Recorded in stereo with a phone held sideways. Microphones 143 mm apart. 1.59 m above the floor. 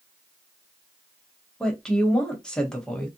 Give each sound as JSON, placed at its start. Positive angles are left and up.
{"t": 1.6, "sound": "a woman speaking", "side_deg": 5, "distance_m": 1.0}